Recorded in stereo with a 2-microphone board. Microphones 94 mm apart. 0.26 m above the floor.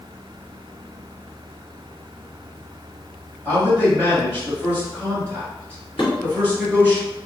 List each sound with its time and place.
3.5 s a man speaking: 20° right (ahead or behind), 1.3 m
6.0 s dishes clattering: 60° left (ahead or behind), 1.9 m